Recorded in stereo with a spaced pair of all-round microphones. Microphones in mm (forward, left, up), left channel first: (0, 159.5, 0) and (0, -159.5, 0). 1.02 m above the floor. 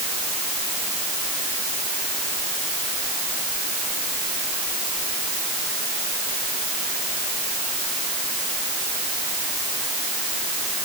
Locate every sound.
Only background noise.